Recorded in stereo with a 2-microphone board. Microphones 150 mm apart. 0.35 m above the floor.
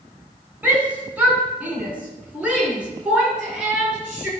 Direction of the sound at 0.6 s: 10° right (ahead or behind).